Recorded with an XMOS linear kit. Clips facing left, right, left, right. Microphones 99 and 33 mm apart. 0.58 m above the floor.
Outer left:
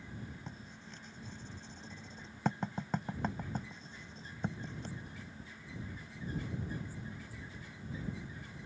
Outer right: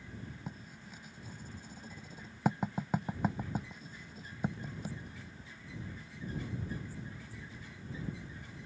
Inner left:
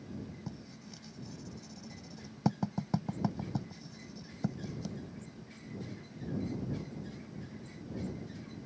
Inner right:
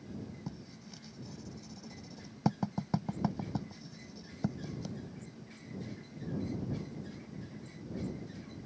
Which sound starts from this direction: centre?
Writing, at 0.5 s.